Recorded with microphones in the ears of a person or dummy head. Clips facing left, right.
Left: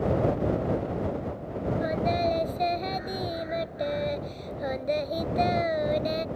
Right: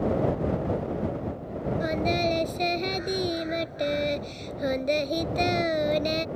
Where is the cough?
No cough in this recording.